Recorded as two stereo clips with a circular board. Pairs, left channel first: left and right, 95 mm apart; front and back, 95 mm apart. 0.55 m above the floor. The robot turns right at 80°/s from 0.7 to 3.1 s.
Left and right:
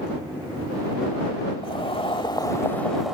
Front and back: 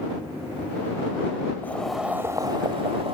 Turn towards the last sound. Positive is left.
turn(degrees=-175)